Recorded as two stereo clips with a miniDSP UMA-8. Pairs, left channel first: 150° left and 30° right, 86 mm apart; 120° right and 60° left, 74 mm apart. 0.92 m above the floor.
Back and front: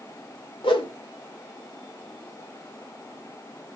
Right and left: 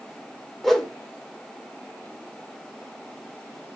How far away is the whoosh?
About 1.7 m.